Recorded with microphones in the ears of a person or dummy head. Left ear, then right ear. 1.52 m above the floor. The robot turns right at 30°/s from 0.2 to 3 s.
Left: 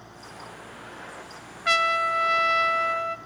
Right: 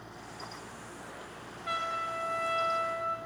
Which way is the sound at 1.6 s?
65° left.